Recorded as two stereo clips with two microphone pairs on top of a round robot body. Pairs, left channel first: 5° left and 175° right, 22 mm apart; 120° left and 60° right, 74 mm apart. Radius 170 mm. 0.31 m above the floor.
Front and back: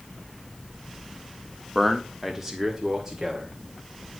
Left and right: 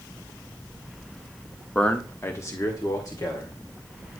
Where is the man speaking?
75° left, 1.6 m; by 3.5 s 125° left, 3 m.